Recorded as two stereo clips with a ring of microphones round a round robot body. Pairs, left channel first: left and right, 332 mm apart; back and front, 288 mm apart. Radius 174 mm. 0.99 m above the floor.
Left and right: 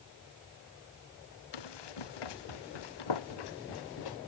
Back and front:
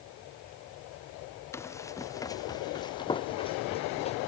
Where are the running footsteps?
100° left; by 4.2 s 110° left.